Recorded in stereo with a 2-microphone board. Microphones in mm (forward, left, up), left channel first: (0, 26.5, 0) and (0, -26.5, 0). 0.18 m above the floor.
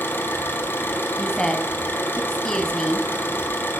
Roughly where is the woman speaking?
Centre.